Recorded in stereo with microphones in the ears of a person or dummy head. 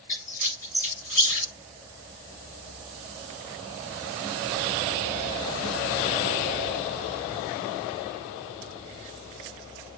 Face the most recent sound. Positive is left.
turn(degrees=10)  # may be behind; listen again after turning